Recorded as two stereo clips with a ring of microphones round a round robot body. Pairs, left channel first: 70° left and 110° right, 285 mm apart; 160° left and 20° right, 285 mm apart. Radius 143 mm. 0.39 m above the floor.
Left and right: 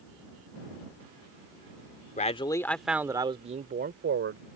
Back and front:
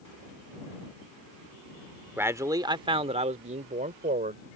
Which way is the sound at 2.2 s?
50° left.